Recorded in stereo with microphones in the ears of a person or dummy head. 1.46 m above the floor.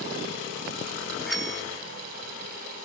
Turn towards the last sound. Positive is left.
turn(degrees=5)  # may be behind; listen again after turning